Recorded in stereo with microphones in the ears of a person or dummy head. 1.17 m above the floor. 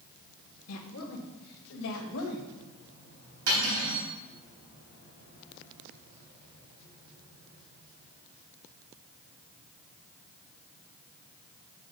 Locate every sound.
0.7 s a woman speaking: 75° left (ahead or behind), 1.0 m; by 2.5 s 85° left, 2.5 m
3.5 s cutlery clinking: 70° right (ahead or behind), 3.5 m